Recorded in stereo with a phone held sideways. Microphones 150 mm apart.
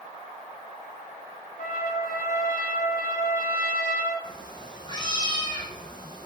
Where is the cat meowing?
30° left (ahead or behind), 3.5 m.